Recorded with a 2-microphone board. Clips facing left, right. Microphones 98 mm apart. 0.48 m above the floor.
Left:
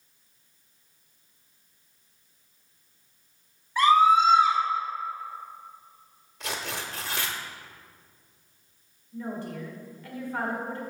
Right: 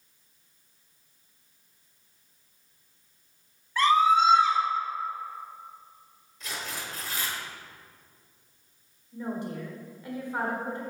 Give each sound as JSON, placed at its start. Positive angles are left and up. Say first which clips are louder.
{"t": 3.8, "sound": "a scream", "louder": "left 2 dB", "side_deg": 10, "distance_m": 1.8}
{"t": 6.4, "sound": "tearing paper", "louder": "left 3 dB", "side_deg": 70, "distance_m": 0.8}
{"t": 9.1, "sound": "a woman speaking", "louder": "right 1 dB", "side_deg": -20, "distance_m": 1.6}